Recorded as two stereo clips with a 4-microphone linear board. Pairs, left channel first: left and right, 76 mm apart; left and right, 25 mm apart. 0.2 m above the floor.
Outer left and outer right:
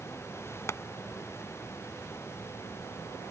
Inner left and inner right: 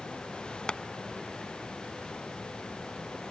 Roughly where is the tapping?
Left.